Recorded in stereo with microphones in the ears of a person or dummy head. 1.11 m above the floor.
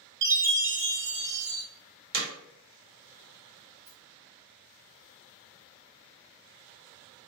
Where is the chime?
50° right (ahead or behind), 1.0 m.